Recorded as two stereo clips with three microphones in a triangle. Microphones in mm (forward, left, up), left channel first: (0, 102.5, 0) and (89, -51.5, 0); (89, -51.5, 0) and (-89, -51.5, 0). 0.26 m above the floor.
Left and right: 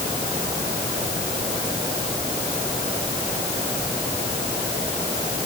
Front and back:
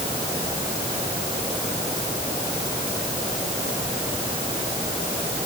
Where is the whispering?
No whispering in this recording.